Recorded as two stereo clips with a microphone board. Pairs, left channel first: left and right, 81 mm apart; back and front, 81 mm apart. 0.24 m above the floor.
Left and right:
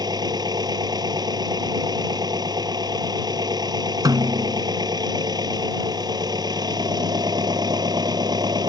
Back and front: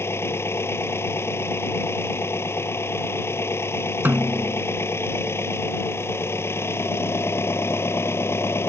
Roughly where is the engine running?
Behind right.